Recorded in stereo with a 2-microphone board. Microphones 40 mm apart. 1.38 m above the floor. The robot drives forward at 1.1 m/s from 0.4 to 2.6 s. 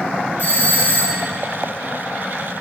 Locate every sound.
0.4 s a doorbell: 50° left (ahead or behind), 2 m; by 1.2 s 60° left (ahead or behind), 1.9 m